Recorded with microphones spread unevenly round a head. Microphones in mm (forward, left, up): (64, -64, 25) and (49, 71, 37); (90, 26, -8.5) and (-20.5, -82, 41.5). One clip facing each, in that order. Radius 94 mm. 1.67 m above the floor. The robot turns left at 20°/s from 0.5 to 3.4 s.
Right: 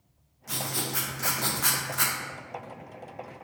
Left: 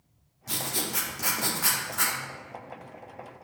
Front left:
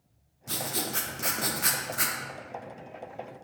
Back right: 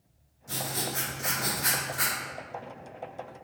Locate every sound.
0.5 s writing: 35° left, 0.7 m; by 2.2 s 5° left, 0.7 m